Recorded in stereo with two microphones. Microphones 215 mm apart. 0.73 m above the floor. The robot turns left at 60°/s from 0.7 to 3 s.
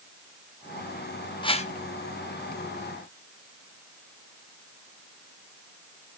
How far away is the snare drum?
I don't hear a snare drum.